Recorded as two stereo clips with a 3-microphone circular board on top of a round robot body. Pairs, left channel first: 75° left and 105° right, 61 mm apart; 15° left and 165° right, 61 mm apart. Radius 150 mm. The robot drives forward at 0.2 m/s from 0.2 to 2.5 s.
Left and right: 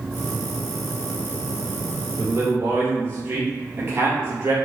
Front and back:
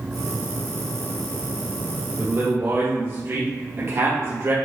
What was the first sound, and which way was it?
A man speaking, 135° right.